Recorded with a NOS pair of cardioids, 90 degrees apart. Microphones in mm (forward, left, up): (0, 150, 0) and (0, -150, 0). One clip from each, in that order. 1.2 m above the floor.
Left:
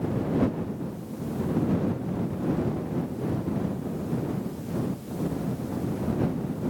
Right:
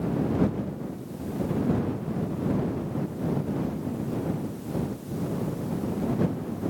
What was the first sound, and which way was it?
Only background noise.